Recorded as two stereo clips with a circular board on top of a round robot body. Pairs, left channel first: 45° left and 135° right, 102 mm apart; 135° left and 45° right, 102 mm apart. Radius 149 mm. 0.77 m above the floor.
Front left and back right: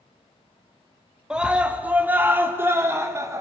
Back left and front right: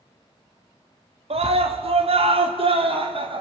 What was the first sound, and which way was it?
A scream, 55° right.